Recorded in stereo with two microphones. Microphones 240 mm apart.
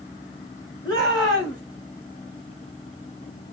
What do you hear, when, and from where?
0.8 s a shout: 15° left (ahead or behind), 6.5 m